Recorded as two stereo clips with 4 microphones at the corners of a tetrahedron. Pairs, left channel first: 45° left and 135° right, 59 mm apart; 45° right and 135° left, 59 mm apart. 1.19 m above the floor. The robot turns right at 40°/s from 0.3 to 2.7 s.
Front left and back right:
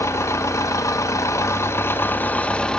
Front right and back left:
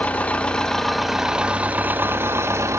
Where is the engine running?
20° left, 0.9 m; by 2.8 s 115° left, 0.9 m.